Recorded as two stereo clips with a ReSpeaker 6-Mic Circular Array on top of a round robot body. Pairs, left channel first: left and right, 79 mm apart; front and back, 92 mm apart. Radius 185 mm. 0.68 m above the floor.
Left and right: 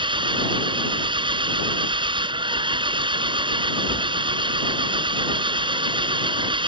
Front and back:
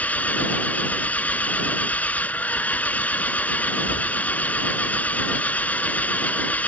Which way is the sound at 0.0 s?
75° right.